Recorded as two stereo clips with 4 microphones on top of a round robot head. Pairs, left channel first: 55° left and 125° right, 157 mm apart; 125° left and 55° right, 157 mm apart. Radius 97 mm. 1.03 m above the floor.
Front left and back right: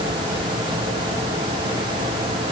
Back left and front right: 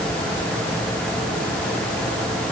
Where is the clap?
I don't hear a clap.